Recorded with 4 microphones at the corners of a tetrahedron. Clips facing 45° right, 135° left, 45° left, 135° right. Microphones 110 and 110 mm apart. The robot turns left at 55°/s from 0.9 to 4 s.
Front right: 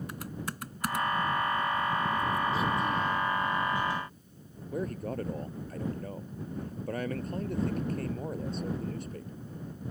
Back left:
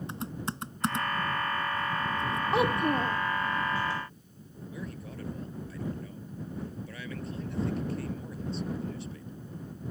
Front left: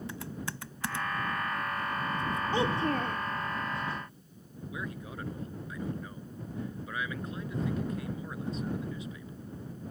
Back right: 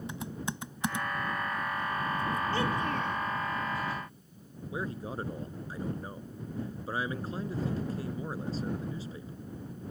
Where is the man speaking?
80° right.